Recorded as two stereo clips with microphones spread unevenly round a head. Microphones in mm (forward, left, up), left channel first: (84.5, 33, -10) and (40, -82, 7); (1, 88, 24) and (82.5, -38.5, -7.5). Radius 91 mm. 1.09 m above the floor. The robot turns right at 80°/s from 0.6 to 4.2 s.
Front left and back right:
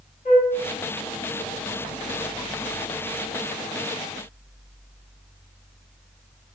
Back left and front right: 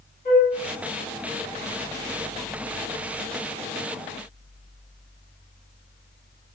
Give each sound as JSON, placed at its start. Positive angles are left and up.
{"t": 0.2, "sound": "a flute", "azimuth_deg": 90, "distance_m": 1.4}